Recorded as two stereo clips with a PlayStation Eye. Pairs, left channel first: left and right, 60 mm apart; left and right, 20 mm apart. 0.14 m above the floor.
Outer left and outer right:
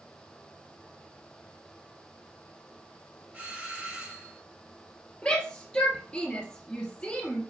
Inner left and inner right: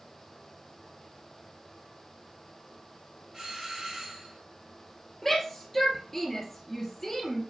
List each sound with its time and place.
3.3 s a doorbell: 20° right (ahead or behind), 4.5 m
5.2 s a shout: 15° left (ahead or behind), 3.5 m